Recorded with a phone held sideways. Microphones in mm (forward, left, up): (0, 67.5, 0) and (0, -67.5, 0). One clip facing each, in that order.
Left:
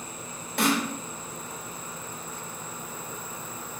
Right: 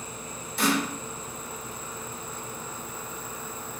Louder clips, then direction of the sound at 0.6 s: Even; 65° left (ahead or behind).